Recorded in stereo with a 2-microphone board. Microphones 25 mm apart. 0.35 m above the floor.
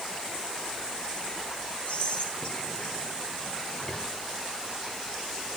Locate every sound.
1.9 s whispering: 50° left (ahead or behind), 3 m